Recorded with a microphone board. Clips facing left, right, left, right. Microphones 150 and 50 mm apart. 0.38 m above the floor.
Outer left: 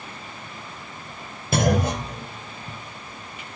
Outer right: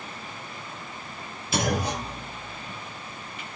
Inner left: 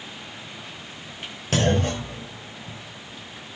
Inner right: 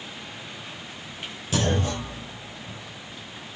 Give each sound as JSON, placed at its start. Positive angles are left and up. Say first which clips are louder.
{"t": 1.5, "sound": "a clunk", "louder": "outer left 5 dB, inner left 3 dB", "side_deg": 55, "distance_m": 4.5}